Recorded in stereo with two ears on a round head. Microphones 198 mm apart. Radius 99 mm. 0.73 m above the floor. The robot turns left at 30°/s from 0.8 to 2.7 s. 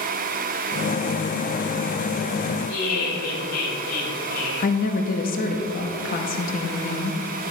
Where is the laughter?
75° left (ahead or behind), 3 m.